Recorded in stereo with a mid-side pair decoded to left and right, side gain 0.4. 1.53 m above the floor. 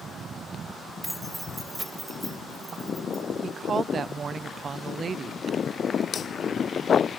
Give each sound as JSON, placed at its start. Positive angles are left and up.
{"t": 1.0, "sound": "keys jangling", "azimuth_deg": -5, "distance_m": 4.0}
{"t": 3.4, "sound": "a woman speaking", "azimuth_deg": -45, "distance_m": 1.1}